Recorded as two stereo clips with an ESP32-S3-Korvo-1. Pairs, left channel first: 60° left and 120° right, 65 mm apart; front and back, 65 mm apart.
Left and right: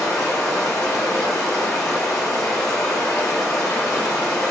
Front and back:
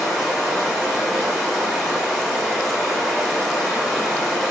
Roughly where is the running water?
Left.